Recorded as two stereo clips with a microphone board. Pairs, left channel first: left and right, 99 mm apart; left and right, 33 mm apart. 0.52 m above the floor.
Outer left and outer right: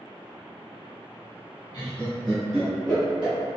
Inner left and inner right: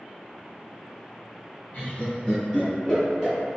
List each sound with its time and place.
1.7 s laughter: 30° left (ahead or behind), 1.4 m; by 3.3 s 10° right (ahead or behind), 3 m